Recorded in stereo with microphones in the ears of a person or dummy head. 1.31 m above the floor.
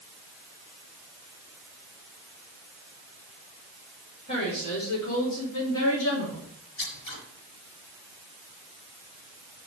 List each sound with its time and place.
4.3 s a woman speaking: 65° left (ahead or behind), 5 m; by 6.5 s 85° left, 2.5 m
6.8 s scissors: 75° left (ahead or behind), 4.5 m